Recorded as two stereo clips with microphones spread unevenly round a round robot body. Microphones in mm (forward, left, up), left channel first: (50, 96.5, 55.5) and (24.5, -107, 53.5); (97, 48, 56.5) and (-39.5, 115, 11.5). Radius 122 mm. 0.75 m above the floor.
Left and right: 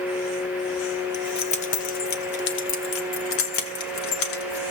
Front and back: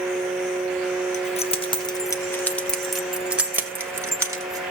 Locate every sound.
1.1 s keys jangling: 15° left, 1.4 m; by 4.6 s 85° left, 2.5 m